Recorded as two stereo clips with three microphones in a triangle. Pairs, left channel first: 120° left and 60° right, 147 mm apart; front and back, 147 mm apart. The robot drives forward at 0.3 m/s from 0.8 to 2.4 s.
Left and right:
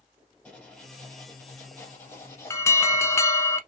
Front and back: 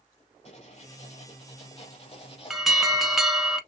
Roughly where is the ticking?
I don't hear ticking.